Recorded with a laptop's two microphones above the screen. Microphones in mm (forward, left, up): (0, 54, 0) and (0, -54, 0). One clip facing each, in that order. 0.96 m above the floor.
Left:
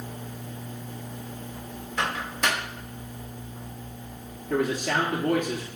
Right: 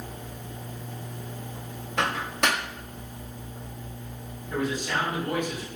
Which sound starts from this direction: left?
A man speaking, at 4.5 s.